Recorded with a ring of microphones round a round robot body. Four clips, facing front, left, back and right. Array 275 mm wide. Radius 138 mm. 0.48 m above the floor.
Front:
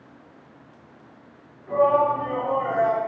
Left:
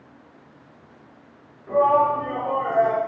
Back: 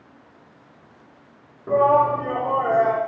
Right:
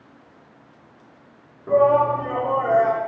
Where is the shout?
150° right, 5.5 m; by 3.0 s 145° right, 6.5 m.